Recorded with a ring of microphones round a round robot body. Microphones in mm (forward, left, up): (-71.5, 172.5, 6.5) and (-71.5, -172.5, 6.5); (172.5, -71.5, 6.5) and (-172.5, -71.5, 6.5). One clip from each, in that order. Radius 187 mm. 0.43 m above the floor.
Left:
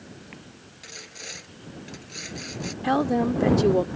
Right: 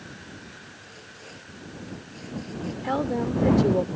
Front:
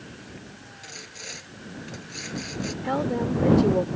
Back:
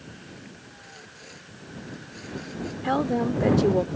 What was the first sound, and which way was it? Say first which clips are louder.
Sawing: left 5 dB, front 9 dB; 60° left.